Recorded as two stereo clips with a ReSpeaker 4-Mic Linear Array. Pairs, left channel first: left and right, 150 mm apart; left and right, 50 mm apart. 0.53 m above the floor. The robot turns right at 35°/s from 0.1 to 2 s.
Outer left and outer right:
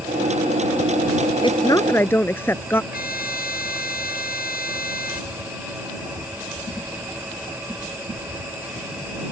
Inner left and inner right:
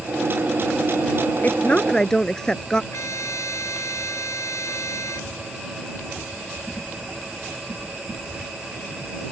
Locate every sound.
1.4 s a woman speaking: 35° left (ahead or behind); by 2.8 s 15° left (ahead or behind)
2.9 s a trumpet: 85° left